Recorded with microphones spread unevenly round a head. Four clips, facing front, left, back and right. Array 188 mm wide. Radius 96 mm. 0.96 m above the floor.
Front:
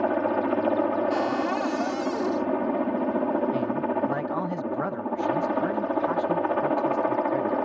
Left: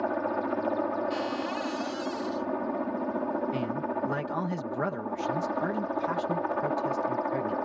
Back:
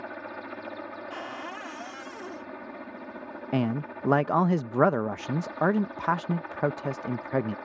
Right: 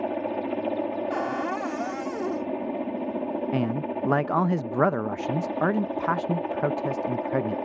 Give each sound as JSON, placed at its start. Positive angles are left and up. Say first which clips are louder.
{"t": 0.0, "sound": "a helicopter", "louder": "right 1 dB, front 15 dB", "azimuth_deg": -5}
{"t": 1.1, "sound": "a cupboard door", "louder": "right 3 dB, front 13 dB", "azimuth_deg": -40}
{"t": 3.5, "sound": "a man speaking", "louder": "right 4 dB, front 3 dB", "azimuth_deg": -150}